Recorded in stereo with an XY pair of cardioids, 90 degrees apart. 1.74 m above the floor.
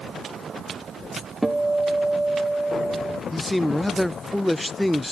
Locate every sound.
1.4 s a guitar: 5° right, 1.5 m
3.3 s a man speaking: 10° left, 0.6 m